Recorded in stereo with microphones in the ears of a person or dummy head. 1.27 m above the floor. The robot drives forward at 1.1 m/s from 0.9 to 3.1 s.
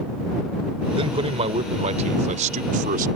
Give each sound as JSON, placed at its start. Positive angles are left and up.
{"t": 0.9, "sound": "a man speaking", "side_deg": -35}